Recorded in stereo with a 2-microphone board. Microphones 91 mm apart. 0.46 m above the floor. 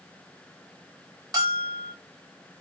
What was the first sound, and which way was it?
A bell, 45° right (ahead or behind).